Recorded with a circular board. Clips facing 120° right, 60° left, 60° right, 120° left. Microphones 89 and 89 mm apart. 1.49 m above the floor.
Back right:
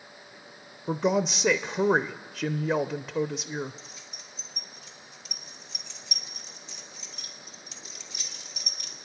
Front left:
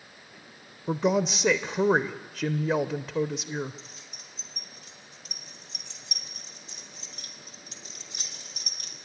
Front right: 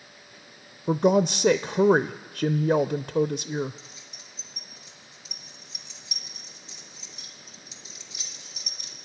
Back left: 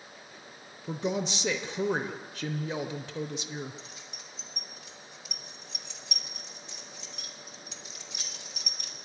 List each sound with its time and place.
0.9 s a woman speaking: 30° right, 0.5 m
3.8 s keys jangling: 95° left, 1.8 m